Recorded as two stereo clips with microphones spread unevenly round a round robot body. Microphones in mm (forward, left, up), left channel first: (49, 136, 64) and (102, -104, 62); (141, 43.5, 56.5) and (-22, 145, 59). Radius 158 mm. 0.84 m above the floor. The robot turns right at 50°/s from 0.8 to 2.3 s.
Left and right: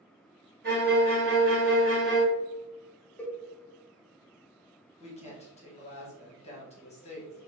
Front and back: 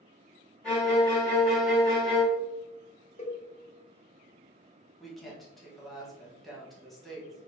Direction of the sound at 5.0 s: 55° left.